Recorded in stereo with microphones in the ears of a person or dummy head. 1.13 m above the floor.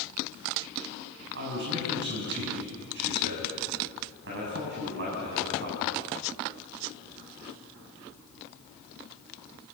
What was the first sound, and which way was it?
A man speaking, 60° right (ahead or behind).